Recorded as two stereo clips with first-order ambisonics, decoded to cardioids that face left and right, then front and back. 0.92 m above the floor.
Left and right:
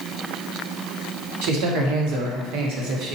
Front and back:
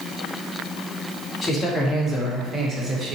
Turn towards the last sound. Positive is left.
turn(degrees=-125)